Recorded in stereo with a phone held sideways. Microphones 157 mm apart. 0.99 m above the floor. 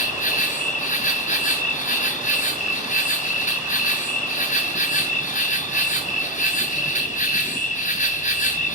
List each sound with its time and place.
0.0 s an insect: 50° left (ahead or behind), 0.7 m